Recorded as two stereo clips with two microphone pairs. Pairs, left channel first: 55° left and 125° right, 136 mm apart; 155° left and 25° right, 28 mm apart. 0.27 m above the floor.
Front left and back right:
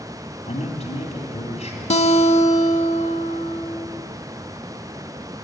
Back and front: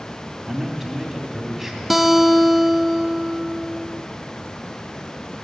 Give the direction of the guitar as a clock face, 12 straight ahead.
10 o'clock.